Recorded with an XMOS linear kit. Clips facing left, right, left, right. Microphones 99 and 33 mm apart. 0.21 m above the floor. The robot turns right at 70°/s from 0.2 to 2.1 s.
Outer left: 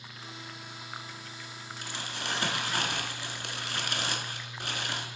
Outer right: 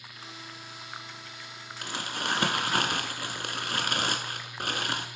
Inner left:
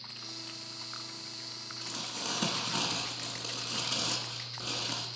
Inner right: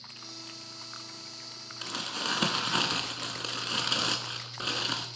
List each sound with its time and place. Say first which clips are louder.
1.8 s crumpling: outer right 5 dB, inner right 6 dB; 70° right (ahead or behind), 0.8 m; by 5.1 s 60° right (ahead or behind), 0.8 m